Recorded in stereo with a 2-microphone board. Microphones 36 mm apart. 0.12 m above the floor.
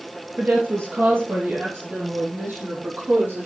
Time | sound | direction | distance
0.4 | a woman speaking | 60° right (ahead or behind) | 3 m